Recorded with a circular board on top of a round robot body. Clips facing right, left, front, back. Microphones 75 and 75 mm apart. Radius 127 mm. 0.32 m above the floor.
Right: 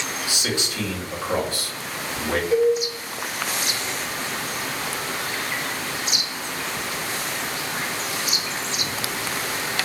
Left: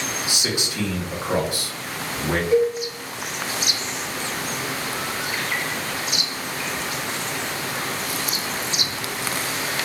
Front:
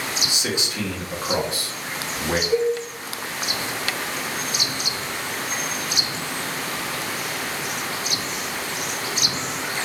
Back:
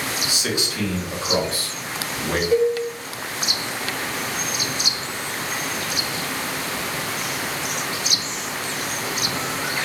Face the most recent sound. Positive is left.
turn(degrees=-160)